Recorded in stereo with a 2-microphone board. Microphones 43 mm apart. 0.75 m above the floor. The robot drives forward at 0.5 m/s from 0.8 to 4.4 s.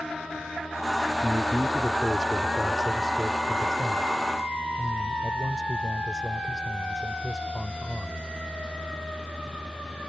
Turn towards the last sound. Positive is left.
turn(degrees=15)  # may be behind; listen again after turning